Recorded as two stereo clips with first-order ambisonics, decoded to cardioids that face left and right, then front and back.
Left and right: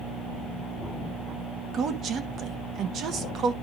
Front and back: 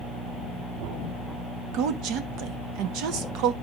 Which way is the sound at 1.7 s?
145° right.